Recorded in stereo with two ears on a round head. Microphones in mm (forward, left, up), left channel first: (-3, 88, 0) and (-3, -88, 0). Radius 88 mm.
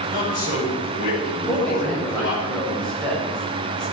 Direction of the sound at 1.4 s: 5° left (ahead or behind).